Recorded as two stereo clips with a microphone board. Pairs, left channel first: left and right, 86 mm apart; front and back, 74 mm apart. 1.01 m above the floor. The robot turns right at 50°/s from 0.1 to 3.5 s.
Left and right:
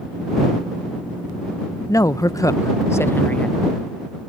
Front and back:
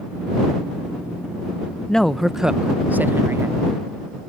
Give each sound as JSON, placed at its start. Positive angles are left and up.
{"t": 1.9, "sound": "a woman speaking", "azimuth_deg": 75}